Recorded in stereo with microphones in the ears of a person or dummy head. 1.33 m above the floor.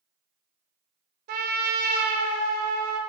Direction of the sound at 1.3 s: 50° right (ahead or behind).